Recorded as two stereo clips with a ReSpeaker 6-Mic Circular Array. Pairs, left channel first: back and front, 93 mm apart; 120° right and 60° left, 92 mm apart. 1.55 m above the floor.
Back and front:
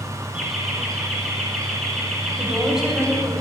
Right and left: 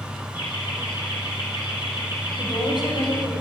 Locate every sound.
0.3 s laughter: 80° right, 9 m
2.4 s a woman speaking: 85° right, 8 m